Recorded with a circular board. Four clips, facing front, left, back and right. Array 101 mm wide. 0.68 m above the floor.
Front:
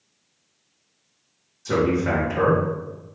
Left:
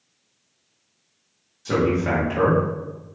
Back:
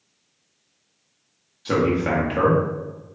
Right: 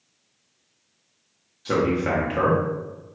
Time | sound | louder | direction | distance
1.6 | a man speaking | left 1 dB, even | 155° right | 0.8 m